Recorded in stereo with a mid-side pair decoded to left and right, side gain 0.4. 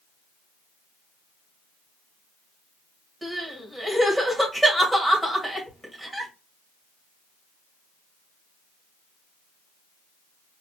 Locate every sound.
3.2 s crying: 10° right, 2 m